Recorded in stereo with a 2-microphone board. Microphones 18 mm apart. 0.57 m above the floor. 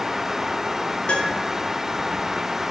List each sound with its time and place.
1.1 s a piano: 60° left (ahead or behind), 0.9 m